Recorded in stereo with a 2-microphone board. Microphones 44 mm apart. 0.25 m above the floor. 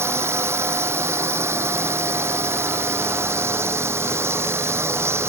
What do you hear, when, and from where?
0.0 s a drone: 75° right (ahead or behind)